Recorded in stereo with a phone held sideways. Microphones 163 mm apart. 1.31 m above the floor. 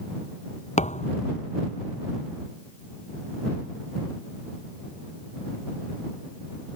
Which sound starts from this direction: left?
A thud, at 0.8 s.